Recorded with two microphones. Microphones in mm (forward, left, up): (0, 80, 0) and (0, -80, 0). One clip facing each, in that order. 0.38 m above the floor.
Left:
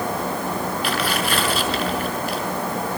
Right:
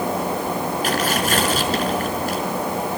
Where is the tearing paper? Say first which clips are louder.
Right 3 dB; 45° right (ahead or behind), 5.5 m.